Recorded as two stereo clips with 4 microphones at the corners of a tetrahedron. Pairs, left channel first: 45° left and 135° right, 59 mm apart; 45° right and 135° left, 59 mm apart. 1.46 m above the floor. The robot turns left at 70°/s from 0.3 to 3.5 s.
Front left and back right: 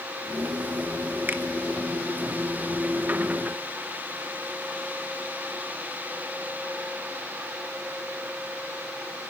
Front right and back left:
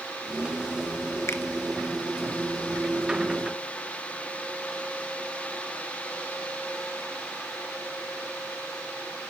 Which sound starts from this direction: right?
A finger snap, at 1.3 s.